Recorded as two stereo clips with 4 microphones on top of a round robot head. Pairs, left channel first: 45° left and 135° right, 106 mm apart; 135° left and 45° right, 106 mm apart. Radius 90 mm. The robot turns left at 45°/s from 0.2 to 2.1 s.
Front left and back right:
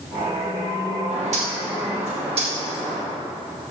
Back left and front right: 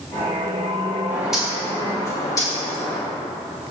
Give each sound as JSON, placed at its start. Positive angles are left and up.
{"t": 1.1, "sound": "a bird", "azimuth_deg": -115, "distance_m": 2.5}